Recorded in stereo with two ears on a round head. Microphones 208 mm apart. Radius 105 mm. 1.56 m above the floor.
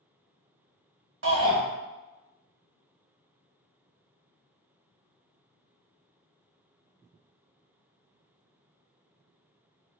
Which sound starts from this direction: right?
A shout, at 1.2 s.